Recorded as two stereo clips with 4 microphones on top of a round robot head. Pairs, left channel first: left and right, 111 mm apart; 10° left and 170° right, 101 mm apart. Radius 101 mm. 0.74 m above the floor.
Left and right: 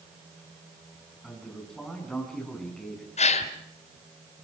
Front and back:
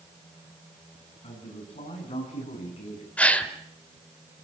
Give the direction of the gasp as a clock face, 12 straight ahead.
9 o'clock.